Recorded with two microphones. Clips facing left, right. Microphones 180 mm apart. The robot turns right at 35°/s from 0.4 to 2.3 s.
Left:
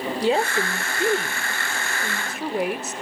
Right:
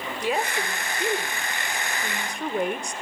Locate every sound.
0.2 s a woman speaking: 30° left (ahead or behind), 1.1 m; by 2.9 s 5° left (ahead or behind), 1.1 m